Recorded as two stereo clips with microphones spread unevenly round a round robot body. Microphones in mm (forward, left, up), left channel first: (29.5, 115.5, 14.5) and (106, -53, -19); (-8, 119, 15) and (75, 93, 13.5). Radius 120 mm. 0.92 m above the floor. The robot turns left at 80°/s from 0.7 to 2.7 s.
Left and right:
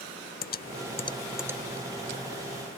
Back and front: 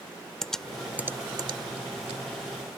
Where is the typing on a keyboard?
80° left; by 2.2 s 40° right.